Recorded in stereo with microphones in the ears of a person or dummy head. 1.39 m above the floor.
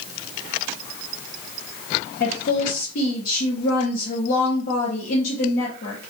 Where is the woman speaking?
50° left (ahead or behind), 0.8 m.